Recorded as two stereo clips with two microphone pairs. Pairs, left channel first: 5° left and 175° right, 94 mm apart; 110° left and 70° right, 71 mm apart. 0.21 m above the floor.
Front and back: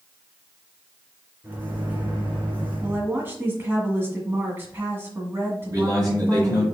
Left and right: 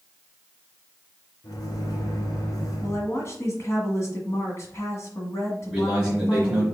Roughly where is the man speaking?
Behind.